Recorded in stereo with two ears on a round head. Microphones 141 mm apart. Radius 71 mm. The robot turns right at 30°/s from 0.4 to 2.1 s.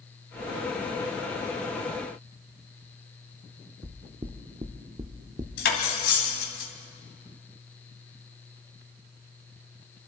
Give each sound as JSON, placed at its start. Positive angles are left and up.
{"t": 3.8, "sound": "knocking", "side_deg": -25, "distance_m": 0.9}
{"t": 5.6, "sound": "cutlery clinking", "side_deg": 70, "distance_m": 2.5}